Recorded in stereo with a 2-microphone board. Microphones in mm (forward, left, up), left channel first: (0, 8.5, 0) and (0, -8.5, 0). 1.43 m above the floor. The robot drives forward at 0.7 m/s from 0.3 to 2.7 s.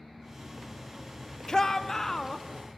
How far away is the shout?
About 0.8 m.